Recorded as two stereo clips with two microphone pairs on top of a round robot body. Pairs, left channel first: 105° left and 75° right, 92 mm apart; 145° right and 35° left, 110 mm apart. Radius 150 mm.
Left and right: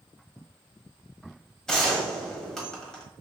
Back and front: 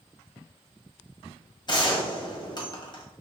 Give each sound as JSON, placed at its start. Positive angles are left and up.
{"t": 1.7, "sound": "a gunshot", "azimuth_deg": -175, "distance_m": 1.5}